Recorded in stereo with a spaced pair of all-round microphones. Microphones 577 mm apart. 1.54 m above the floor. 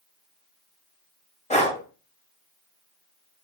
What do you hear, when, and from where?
1.5 s breathing: 10° left (ahead or behind), 1.1 m